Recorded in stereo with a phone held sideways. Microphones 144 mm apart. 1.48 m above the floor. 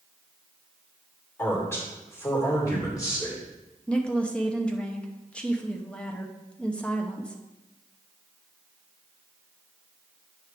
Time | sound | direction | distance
1.4 | a man speaking | 15° left (ahead or behind) | 4 m
3.9 | a woman speaking | 10° left (ahead or behind) | 0.8 m